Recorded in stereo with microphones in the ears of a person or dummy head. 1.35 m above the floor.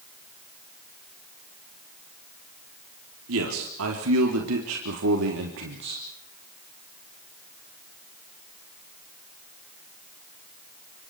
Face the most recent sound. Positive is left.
turn(degrees=-65)  # may be behind; listen again after turning